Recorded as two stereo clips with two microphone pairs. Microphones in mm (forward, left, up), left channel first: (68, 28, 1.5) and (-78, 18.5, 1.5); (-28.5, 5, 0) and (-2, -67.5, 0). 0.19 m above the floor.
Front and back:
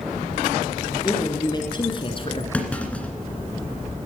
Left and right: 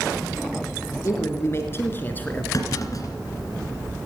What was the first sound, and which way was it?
A man speaking, 70° left.